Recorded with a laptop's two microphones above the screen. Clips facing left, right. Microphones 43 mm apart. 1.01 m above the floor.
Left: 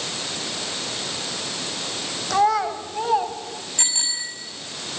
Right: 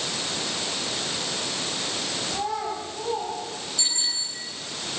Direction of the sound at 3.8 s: 55° left (ahead or behind).